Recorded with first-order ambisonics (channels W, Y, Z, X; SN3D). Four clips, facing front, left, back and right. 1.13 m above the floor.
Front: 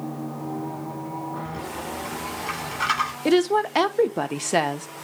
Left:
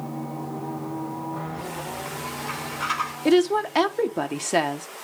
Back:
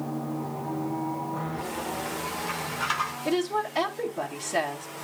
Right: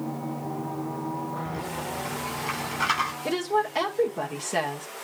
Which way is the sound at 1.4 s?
30° right.